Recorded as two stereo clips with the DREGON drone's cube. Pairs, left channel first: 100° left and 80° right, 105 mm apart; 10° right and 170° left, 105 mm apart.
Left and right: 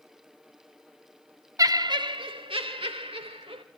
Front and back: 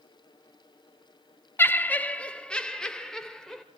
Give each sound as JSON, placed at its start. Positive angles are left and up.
{"t": 1.6, "sound": "laughter", "azimuth_deg": -65, "distance_m": 0.6}